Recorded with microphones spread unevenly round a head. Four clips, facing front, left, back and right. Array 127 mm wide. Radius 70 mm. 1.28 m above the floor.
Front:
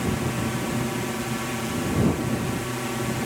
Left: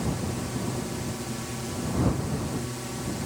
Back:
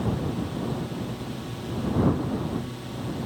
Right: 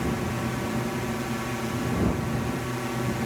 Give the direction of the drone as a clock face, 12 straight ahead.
1 o'clock.